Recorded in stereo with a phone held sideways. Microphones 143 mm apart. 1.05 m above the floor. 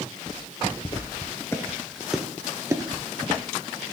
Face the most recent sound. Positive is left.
turn(degrees=-40)  # may be behind; listen again after turning